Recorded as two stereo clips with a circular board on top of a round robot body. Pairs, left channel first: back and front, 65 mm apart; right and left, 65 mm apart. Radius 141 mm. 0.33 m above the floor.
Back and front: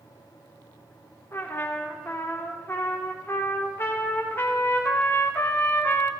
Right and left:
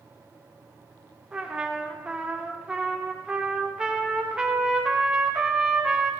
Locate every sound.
1.3 s a trumpet: 160° left, 1.4 m